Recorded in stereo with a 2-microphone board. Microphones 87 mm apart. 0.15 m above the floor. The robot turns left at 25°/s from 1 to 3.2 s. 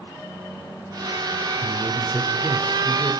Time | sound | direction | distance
1.6 | a man speaking | 20° right (ahead or behind) | 1.2 m